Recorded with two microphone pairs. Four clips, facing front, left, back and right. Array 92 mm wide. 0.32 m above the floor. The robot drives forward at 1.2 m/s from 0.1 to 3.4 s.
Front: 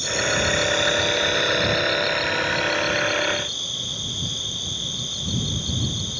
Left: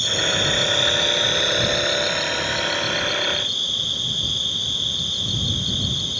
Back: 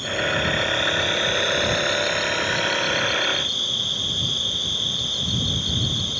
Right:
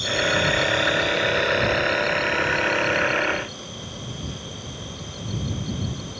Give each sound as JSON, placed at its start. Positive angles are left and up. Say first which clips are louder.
{"t": 0.0, "sound": "an insect", "louder": "right 2 dB, even", "azimuth_deg": 105}